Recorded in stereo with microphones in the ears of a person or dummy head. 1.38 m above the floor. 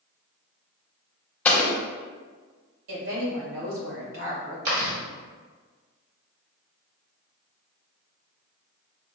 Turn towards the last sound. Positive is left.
turn(degrees=-40)  # may be behind; listen again after turning